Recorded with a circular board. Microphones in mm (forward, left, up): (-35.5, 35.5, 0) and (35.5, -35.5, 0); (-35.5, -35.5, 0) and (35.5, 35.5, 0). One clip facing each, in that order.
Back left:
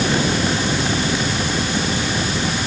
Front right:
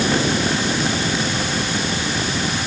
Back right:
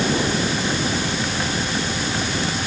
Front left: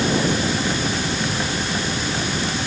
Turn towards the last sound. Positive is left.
No sound to turn to.